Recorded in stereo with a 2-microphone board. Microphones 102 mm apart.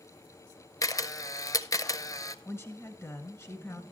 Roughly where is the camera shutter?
Left.